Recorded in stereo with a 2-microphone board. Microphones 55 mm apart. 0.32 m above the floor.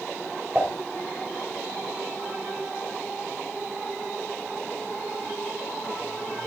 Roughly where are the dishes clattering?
Centre.